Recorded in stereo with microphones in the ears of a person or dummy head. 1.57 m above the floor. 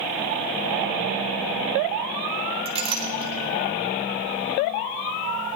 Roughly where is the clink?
Right.